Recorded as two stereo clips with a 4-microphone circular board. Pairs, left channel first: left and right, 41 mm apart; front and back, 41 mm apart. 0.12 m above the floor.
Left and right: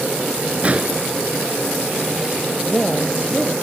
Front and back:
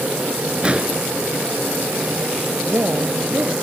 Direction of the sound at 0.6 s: 130° right.